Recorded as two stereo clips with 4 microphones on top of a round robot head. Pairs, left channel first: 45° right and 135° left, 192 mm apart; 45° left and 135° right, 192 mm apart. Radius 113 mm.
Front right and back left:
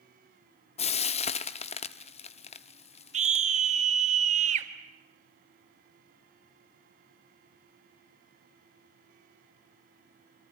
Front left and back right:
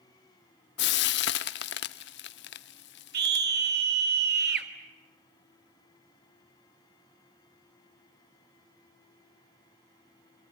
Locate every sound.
0.8 s frying: 10° left, 0.7 m
3.1 s a scream: 170° right, 3.5 m